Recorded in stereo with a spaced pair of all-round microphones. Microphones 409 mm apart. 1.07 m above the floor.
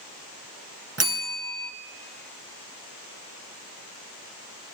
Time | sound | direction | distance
1.0 | a bell | 35° right (ahead or behind) | 0.9 m